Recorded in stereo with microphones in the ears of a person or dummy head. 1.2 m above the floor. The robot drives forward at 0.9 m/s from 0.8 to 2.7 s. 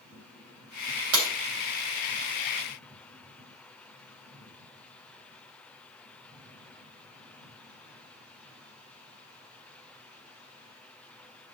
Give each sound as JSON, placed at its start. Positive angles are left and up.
{"t": 1.1, "sound": "breaking glass", "side_deg": -80, "distance_m": 4.0}